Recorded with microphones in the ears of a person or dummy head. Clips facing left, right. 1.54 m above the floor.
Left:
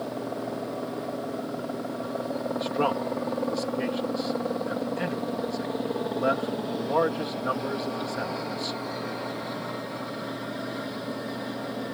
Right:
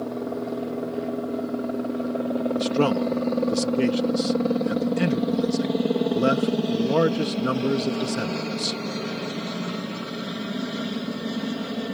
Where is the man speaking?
40° right (ahead or behind).